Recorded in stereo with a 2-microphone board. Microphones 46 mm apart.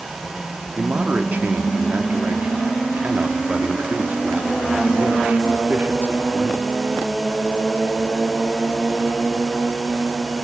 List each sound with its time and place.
0.8 s a man speaking: 40° right (ahead or behind), 1.1 m